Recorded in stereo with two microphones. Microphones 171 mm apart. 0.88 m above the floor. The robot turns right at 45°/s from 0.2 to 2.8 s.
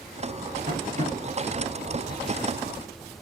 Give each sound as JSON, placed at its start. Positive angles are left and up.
{"t": 0.7, "sound": "tapping", "side_deg": -45, "distance_m": 1.5}